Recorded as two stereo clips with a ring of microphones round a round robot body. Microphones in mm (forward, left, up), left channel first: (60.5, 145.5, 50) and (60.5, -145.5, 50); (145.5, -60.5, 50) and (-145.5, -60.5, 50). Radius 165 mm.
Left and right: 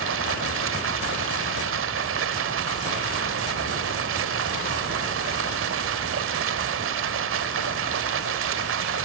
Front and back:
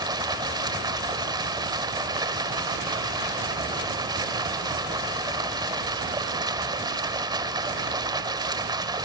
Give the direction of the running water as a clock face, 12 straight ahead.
4 o'clock.